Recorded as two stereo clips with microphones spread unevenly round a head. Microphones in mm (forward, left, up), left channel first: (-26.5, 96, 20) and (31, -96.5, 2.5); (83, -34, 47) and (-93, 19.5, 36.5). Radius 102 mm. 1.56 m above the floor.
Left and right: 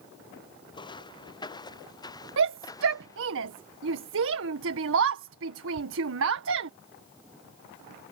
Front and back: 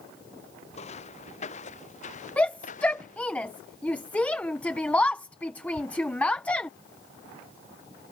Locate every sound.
0.7 s footsteps: 40° left; by 3.3 s 35° left
2.4 s a shout: 100° right